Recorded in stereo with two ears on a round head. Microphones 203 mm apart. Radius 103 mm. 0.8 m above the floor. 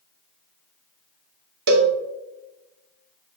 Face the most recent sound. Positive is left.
turn(degrees=-50)  # may be behind; listen again after turning